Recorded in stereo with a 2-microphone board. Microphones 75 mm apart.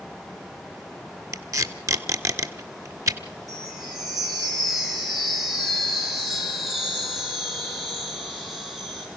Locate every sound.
1.3 s tape being pulled: 45° right (ahead or behind), 1.5 m
3.5 s a chime: centre (ahead or behind), 5 m